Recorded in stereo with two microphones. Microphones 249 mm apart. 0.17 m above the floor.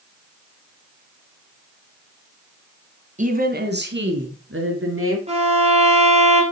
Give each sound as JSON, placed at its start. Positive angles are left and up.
{"t": 3.2, "sound": "a woman speaking", "side_deg": -30, "distance_m": 1.6}
{"t": 5.3, "sound": "a violin", "side_deg": -25, "distance_m": 2.5}